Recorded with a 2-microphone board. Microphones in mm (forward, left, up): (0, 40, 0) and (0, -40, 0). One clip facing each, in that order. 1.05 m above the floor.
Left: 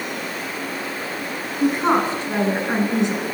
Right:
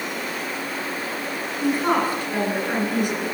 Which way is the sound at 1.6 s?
25° left (ahead or behind).